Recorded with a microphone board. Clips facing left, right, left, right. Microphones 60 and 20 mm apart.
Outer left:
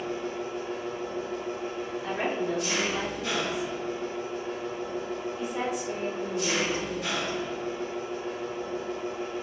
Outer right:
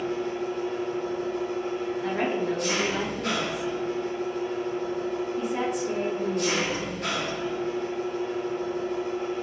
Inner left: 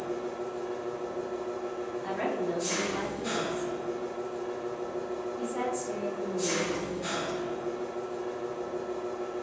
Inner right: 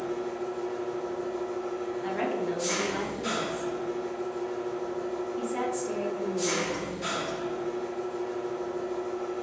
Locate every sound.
0.0 s an engine running: 50° right (ahead or behind), 1.6 m
2.0 s a woman speaking: 55° right (ahead or behind), 1.8 m